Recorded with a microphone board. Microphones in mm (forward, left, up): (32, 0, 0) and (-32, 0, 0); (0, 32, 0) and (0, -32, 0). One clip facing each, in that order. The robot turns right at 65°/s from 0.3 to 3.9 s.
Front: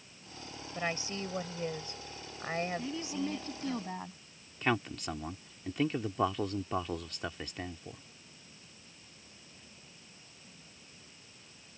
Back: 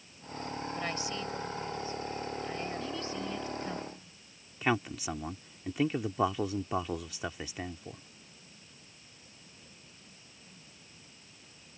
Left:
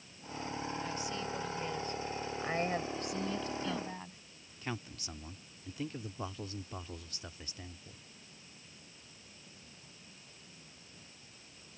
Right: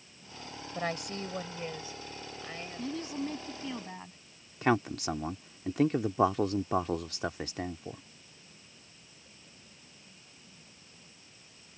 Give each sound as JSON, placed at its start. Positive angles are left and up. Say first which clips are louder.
{"t": 0.8, "sound": "a woman speaking", "louder": "front 3 dB, right 3 dB", "azimuth_deg": -80}
{"t": 2.8, "sound": "a woman speaking", "louder": "front 1 dB, right 2 dB", "azimuth_deg": -80}
{"t": 4.6, "sound": "a man speaking", "louder": "back 1 dB, right 15 dB", "azimuth_deg": -100}